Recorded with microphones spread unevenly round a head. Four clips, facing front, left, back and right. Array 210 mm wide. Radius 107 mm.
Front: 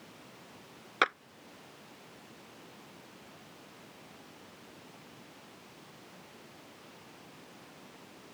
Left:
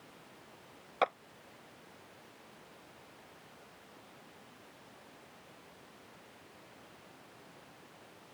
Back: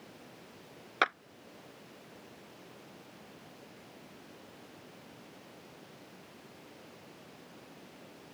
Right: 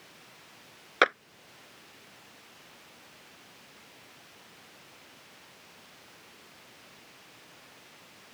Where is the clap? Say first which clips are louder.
Right 6 dB, front 1 dB; 85° right.